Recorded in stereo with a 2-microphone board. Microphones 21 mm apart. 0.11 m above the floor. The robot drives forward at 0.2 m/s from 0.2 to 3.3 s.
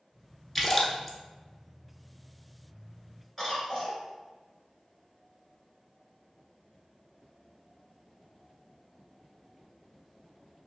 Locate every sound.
0.6 s a splash: 5° left (ahead or behind), 0.7 m; by 1.2 s 10° left (ahead or behind), 0.6 m
3.4 s a cough: 5° right (ahead or behind), 1.4 m